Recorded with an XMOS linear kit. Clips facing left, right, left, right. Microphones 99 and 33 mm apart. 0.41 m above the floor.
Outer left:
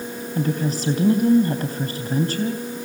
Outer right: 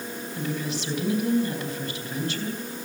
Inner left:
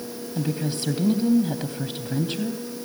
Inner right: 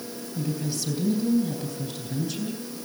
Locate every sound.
0.3 s a woman speaking: 40° left (ahead or behind), 3 m